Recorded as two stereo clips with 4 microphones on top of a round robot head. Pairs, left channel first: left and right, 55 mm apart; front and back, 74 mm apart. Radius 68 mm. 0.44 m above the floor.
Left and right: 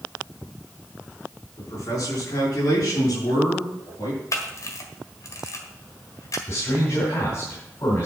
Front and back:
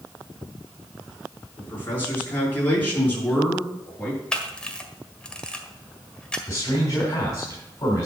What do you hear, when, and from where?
1.6 s a man speaking: 60° left, 5 m; by 4.2 s 70° left, 6.5 m
4.3 s a camera shutter: 75° left, 1.6 m
6.5 s a man speaking: 50° left, 3.5 m